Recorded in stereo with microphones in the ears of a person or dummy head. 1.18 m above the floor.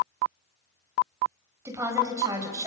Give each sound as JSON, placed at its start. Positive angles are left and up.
{"t": 1.6, "sound": "a woman speaking", "side_deg": -15, "distance_m": 5.5}